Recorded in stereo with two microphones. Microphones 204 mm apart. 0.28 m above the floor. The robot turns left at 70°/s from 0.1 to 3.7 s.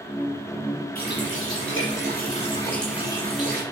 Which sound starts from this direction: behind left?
A running tap, at 0.9 s.